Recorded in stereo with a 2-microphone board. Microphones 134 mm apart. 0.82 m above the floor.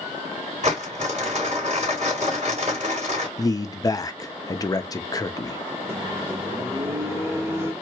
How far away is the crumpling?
About 3 m.